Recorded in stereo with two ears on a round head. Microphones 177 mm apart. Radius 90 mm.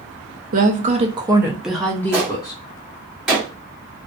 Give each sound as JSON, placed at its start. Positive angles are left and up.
{"t": 0.5, "sound": "a woman speaking", "side_deg": -45, "distance_m": 0.7}
{"t": 2.1, "sound": "a gunshot", "side_deg": -5, "distance_m": 1.4}